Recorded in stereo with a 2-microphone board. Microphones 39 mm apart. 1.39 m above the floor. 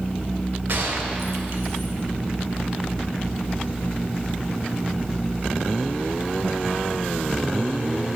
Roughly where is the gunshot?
Right.